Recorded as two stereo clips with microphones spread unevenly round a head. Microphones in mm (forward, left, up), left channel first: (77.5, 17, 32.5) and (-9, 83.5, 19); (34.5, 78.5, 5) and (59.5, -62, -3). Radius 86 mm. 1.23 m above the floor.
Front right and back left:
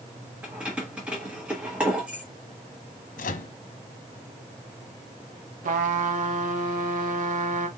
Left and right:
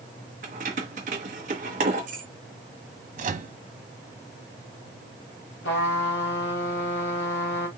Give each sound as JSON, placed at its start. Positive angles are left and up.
{"t": 0.4, "sound": "keys jangling", "azimuth_deg": -130, "distance_m": 0.9}
{"t": 3.2, "sound": "a microwave", "azimuth_deg": -40, "distance_m": 0.8}
{"t": 5.6, "sound": "a trumpet", "azimuth_deg": 140, "distance_m": 1.1}